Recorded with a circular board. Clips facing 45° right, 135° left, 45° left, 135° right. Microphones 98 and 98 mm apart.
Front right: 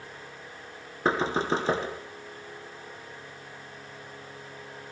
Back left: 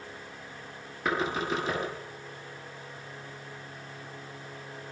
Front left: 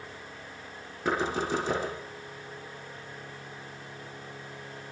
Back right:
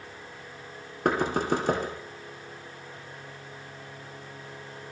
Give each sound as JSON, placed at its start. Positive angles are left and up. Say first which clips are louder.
{"t": 1.1, "sound": "knocking", "louder": "front right 3 dB, back right 3 dB", "azimuth_deg": -105, "distance_m": 5.5}